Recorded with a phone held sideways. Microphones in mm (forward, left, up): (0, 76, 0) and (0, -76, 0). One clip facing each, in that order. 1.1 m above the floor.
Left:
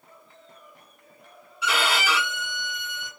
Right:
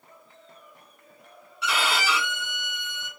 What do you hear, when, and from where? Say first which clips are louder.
1.6 s a violin: left 1 dB; 5° left (ahead or behind), 3.5 m